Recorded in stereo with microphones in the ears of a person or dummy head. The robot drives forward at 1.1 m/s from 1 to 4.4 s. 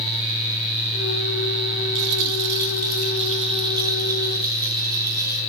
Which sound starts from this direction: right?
A rattle, at 1.9 s.